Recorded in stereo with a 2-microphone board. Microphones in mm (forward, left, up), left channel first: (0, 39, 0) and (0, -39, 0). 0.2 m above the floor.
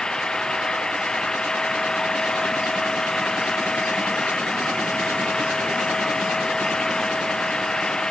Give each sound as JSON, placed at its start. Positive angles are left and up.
{"t": 0.0, "sound": "an engine running", "side_deg": 10}